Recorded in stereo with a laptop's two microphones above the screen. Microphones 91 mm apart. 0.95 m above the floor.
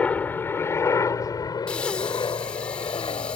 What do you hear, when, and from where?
0.0 s a helicopter: 15° left (ahead or behind); by 3.4 s 65° left (ahead or behind)
1.7 s breathing: 10° left (ahead or behind)